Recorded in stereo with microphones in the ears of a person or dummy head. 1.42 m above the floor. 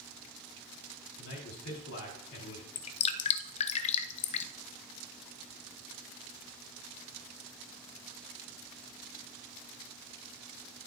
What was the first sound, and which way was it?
A man speaking, 80° left.